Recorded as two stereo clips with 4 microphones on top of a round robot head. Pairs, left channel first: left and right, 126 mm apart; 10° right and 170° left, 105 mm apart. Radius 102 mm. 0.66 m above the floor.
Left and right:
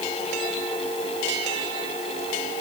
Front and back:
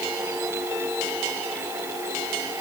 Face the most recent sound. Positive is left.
No sound to turn to.